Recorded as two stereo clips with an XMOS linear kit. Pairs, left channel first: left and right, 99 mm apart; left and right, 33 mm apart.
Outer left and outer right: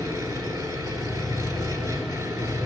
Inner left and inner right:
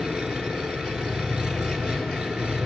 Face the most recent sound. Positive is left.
turn(degrees=-30)  # may be behind; listen again after turning